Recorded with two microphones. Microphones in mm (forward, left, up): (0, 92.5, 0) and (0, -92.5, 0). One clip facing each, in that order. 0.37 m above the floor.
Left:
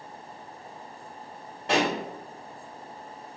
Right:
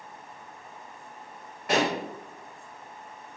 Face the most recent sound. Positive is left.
turn(degrees=30)  # may be behind; listen again after turning